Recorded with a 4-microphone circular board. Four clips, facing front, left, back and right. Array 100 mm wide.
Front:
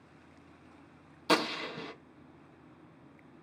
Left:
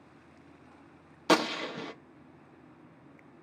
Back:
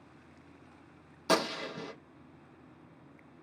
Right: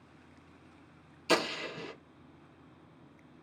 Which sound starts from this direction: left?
A gunshot, at 1.3 s.